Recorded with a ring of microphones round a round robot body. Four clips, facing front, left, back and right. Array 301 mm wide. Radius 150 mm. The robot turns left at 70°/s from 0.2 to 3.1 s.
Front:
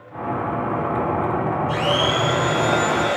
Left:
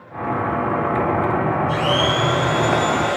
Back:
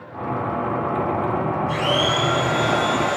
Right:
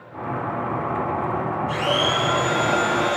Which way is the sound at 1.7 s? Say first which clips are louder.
Left 3 dB, front 1 dB; 145° right.